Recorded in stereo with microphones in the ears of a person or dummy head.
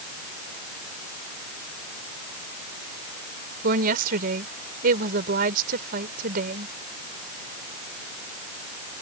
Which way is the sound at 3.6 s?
50° right (ahead or behind).